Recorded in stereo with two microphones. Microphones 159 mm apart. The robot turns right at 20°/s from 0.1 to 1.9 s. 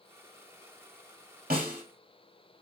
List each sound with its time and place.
1.5 s a snare drum: 65° right (ahead or behind), 1.8 m; by 1.8 s 60° right (ahead or behind), 1.8 m